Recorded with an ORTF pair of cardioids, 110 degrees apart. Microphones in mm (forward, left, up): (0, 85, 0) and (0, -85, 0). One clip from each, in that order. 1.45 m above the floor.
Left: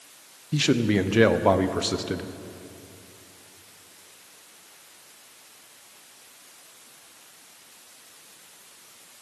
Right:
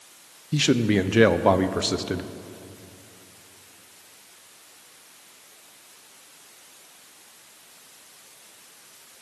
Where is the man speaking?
5° right, 0.6 m.